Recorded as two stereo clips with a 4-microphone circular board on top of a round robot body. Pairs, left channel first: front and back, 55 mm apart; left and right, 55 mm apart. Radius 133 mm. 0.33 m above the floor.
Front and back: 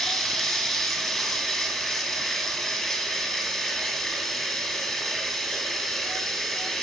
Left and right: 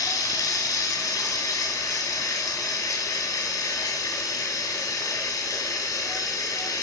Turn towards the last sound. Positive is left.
turn(degrees=90)